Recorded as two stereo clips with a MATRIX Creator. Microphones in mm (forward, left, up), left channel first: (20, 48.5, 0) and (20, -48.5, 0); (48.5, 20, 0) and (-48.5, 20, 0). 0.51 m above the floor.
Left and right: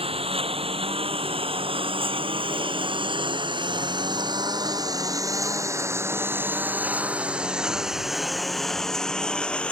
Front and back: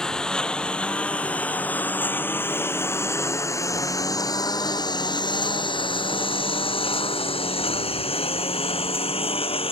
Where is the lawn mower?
85° right; by 9.7 s 10° left.